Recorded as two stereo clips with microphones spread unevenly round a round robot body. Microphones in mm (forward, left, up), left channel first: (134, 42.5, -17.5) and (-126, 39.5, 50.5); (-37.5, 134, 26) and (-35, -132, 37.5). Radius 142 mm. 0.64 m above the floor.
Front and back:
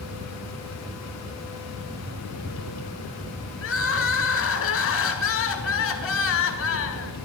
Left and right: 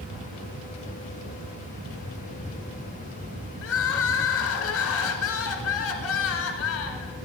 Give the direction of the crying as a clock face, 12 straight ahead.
11 o'clock.